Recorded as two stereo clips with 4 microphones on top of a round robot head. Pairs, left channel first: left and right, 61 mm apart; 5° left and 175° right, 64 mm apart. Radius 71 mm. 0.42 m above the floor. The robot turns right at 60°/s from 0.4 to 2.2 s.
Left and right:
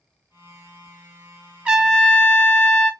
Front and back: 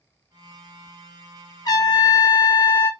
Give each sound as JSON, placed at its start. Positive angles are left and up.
{"t": 1.6, "sound": "a trumpet", "azimuth_deg": -20, "distance_m": 0.7}